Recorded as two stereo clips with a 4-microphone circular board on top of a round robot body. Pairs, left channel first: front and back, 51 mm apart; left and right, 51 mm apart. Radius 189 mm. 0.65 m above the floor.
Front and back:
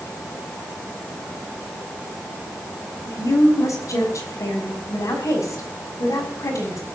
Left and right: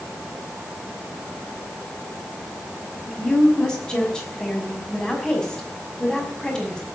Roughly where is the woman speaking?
Ahead.